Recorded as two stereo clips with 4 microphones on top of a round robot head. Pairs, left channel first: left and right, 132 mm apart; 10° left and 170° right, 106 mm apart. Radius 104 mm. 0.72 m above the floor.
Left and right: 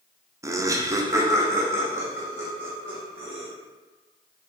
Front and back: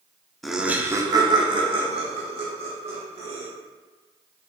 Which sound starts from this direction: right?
Laughter, at 0.4 s.